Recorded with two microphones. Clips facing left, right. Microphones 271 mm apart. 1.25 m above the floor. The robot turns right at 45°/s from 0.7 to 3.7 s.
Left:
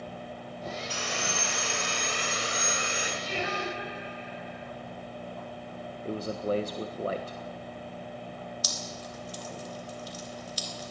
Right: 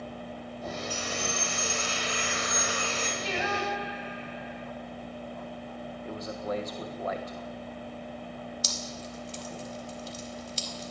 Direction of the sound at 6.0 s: 35° left (ahead or behind).